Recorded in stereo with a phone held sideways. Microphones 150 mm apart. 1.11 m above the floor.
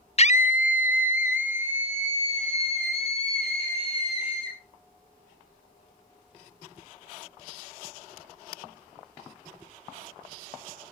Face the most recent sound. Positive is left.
turn(degrees=40)  # may be behind; listen again after turning